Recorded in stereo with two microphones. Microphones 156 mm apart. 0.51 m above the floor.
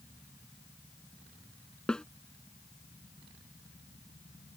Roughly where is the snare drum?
Centre.